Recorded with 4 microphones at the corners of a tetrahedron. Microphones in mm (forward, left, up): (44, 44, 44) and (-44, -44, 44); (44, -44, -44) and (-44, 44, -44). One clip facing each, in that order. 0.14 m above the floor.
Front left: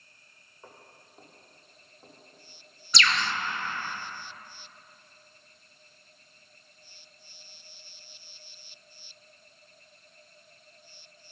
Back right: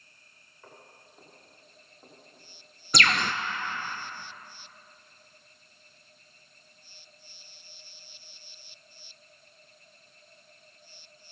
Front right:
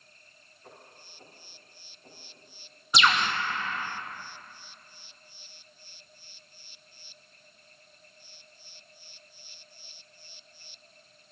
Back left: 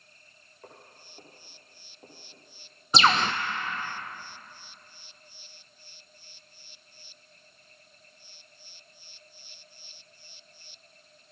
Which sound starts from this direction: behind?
A bird, at 2.9 s.